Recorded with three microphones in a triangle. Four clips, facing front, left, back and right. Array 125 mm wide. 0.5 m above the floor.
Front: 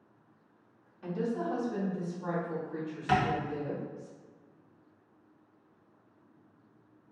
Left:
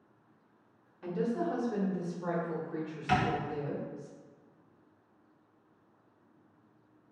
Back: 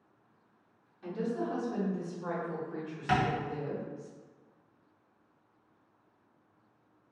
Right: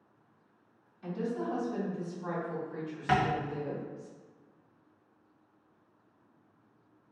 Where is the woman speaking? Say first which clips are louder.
Left 2 dB, front 1 dB; 65° left, 1.0 m; by 4.1 s 125° left, 2.5 m.